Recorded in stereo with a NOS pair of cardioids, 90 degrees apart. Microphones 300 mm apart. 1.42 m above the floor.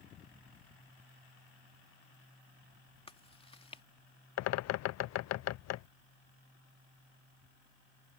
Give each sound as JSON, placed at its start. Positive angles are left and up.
{"t": 3.1, "sound": "chewing", "azimuth_deg": 20}
{"t": 4.4, "sound": "a bird", "azimuth_deg": 70}